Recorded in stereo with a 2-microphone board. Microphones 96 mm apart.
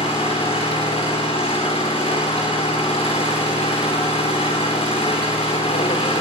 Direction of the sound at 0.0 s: 85° left.